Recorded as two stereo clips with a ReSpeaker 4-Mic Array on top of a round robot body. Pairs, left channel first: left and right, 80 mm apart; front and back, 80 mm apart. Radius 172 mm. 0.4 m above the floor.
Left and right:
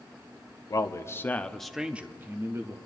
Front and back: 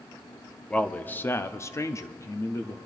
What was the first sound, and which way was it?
A man speaking, 70° left.